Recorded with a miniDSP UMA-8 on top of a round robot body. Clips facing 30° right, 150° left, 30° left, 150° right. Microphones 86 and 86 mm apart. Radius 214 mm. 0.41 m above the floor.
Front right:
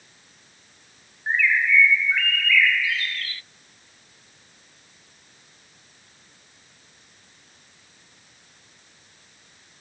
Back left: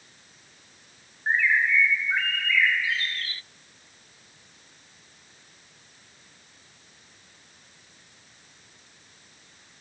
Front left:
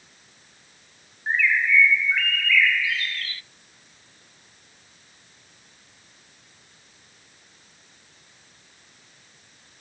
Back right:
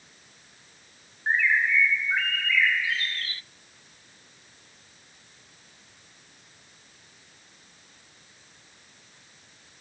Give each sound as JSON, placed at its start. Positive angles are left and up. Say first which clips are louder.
{"t": 1.3, "sound": "a bird", "louder": "front right 1 dB, front left 1 dB", "azimuth_deg": -175, "distance_m": 1.0}